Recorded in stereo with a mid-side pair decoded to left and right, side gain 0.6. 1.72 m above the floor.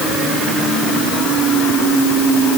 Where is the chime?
I don't hear a chime.